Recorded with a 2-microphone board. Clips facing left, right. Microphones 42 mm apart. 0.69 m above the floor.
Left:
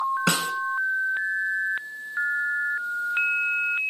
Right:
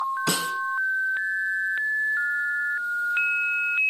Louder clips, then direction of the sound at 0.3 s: Left 2 dB; 70° left (ahead or behind).